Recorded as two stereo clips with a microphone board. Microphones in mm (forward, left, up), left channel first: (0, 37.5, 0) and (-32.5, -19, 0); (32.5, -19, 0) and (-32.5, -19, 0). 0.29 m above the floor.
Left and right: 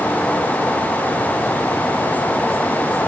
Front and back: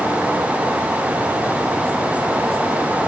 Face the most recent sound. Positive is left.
No sound to turn to.